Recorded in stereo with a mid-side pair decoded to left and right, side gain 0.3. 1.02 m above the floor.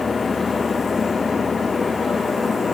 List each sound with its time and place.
0.0 s a fan: 50° left